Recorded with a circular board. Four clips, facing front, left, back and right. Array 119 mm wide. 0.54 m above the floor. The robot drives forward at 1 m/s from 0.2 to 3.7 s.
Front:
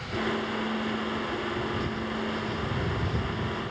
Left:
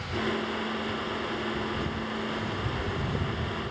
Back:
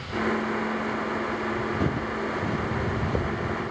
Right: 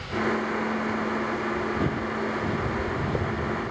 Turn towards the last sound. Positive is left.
turn(degrees=-145)